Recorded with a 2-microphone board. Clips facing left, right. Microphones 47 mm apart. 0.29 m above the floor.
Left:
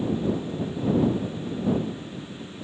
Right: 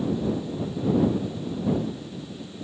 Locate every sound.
Only background noise.